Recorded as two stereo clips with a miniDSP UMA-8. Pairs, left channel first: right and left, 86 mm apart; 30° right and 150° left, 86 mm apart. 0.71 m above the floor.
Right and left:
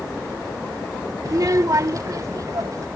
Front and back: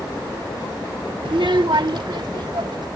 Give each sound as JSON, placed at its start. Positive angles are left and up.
{"t": 1.2, "sound": "a child speaking", "azimuth_deg": 135}